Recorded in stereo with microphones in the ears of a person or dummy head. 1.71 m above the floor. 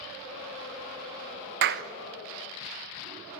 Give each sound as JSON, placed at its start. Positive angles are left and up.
{"t": 1.6, "sound": "a clap", "side_deg": -45, "distance_m": 1.0}